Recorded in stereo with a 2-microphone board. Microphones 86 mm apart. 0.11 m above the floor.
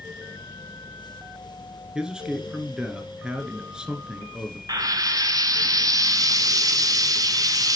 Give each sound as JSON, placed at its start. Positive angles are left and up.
{"t": 1.9, "sound": "a man speaking", "side_deg": -10, "distance_m": 1.2}
{"t": 4.7, "sound": "frying", "side_deg": -45, "distance_m": 0.6}